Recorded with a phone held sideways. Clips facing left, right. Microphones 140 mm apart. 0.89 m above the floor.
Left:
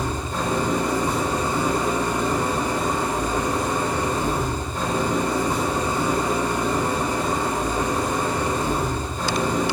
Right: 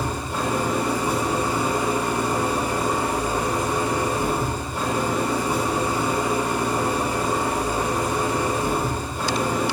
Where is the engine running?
10° right (ahead or behind), 4 m.